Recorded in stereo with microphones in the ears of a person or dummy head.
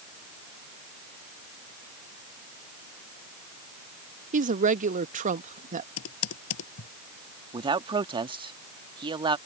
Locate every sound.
4.3 s a woman speaking: 45° right (ahead or behind)
6.0 s typing on a keyboard: 85° left
7.5 s a man speaking: 20° right (ahead or behind)